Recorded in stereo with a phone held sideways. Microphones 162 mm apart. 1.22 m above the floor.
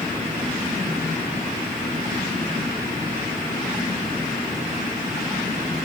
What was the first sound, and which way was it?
Only background noise.